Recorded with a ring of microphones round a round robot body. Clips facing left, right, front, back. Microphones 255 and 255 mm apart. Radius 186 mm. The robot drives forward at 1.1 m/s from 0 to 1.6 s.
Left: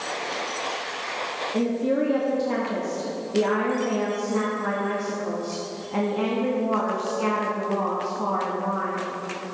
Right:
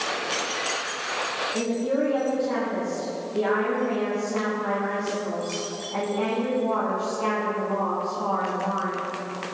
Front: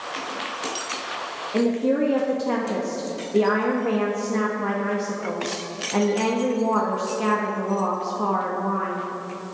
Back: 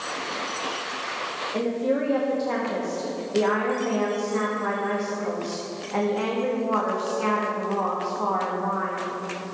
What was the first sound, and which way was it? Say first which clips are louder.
A woman speaking: left 2 dB, front 4 dB; 40° left.